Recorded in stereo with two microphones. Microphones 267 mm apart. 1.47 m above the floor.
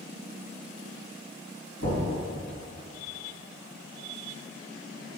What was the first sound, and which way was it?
Knocking, 60° left (ahead or behind).